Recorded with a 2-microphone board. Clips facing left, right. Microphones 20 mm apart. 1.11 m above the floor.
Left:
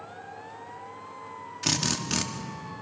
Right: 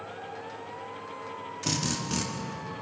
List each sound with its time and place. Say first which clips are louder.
1.6 s a drill: left 3 dB; 30° left (ahead or behind), 1.8 m